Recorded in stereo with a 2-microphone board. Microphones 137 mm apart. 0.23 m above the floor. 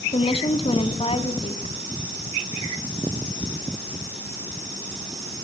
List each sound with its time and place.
0.1 s a woman speaking: 45° left (ahead or behind), 1.6 m